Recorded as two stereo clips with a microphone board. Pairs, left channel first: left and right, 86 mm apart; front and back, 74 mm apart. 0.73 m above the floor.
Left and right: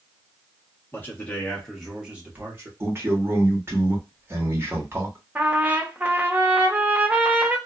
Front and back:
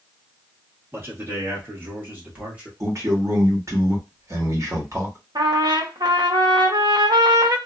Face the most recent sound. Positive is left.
turn(degrees=-160)